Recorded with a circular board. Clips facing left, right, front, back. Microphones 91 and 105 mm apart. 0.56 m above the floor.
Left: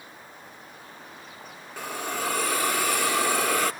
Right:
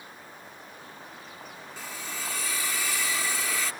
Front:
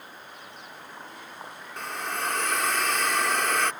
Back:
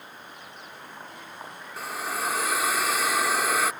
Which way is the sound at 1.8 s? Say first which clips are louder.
Left 9 dB, back 1 dB; 100° left.